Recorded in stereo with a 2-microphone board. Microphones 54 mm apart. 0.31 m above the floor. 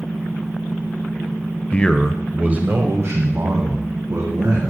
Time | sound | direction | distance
1.7 | a man speaking | 25° left (ahead or behind) | 1.1 m